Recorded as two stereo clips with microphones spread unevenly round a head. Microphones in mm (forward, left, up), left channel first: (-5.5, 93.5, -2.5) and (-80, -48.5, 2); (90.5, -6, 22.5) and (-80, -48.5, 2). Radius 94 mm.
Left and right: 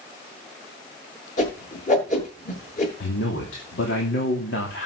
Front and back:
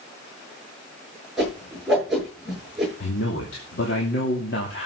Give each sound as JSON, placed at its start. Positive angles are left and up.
{"t": 1.4, "sound": "a whoosh", "azimuth_deg": 105, "distance_m": 8.5}
{"t": 3.0, "sound": "a man speaking", "azimuth_deg": 50, "distance_m": 2.5}